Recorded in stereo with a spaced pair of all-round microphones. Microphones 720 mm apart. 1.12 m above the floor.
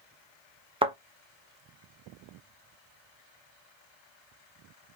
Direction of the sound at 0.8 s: 10° right (ahead or behind).